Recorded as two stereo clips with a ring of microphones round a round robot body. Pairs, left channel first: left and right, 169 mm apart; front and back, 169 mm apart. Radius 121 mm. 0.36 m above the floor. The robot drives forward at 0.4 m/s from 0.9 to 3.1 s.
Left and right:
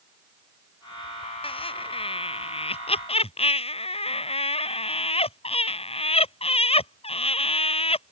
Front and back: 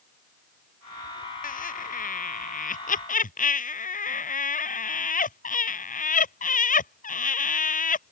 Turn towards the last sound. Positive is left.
turn(degrees=35)